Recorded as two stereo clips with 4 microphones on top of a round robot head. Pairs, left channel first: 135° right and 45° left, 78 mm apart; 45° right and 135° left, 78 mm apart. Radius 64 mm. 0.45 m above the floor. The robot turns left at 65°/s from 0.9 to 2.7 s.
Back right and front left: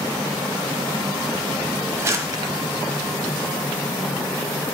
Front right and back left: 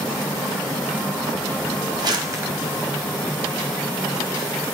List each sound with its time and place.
2.0 s crumpling: 105° left, 1.0 m; by 2.5 s 70° left, 1.0 m